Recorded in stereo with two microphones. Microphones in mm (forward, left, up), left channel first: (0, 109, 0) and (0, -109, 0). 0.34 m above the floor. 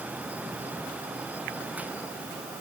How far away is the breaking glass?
I don't hear breaking glass.